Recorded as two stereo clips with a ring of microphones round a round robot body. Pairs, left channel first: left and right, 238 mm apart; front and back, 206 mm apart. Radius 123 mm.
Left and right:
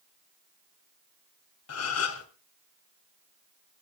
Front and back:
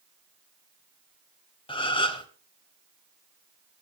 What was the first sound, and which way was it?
A gasp, 65° left.